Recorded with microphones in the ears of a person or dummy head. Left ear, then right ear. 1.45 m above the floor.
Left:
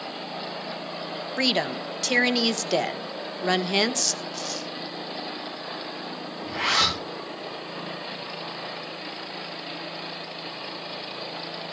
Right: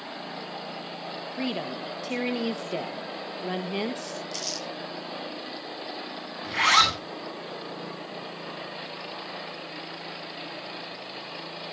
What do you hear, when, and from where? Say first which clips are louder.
1.4 s a woman speaking: left 9 dB; 50° left (ahead or behind), 1.2 m
4.3 s crumpling: even; 75° right (ahead or behind), 9 m
6.4 s a zipper: right 3 dB; 75° right (ahead or behind), 8 m